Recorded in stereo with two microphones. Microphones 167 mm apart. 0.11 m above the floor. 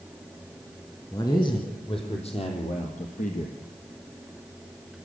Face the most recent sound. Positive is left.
turn(degrees=60)  # may be behind; listen again after turning